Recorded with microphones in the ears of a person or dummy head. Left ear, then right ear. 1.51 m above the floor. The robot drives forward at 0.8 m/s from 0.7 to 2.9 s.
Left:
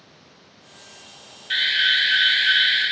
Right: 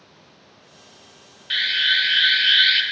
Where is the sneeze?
I don't hear a sneeze.